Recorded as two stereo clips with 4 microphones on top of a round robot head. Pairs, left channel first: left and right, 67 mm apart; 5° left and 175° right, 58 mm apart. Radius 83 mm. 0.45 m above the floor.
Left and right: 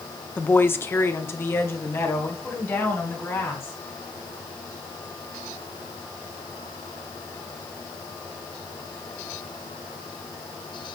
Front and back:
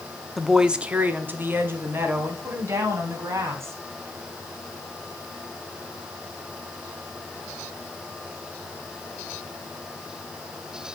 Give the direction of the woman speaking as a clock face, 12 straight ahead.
9 o'clock.